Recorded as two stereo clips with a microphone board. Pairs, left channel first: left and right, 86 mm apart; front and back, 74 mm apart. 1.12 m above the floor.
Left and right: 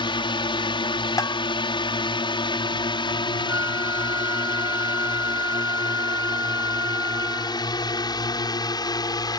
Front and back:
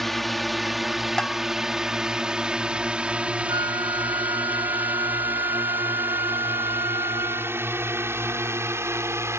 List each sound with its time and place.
0.0 s a drone: 90° left; by 9.4 s 130° left
1.2 s a bell: 75° left
3.5 s a flute: 150° right